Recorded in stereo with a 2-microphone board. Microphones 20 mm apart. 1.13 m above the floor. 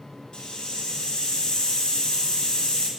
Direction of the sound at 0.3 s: 60° left (ahead or behind).